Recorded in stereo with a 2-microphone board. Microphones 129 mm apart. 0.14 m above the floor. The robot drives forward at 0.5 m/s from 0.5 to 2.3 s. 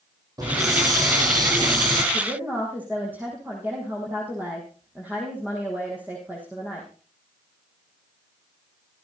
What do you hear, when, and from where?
0.4 s a hiss: 30° right (ahead or behind), 4.5 m; by 2.0 s 35° right (ahead or behind), 4 m
2.1 s a woman speaking: 15° right (ahead or behind), 5 m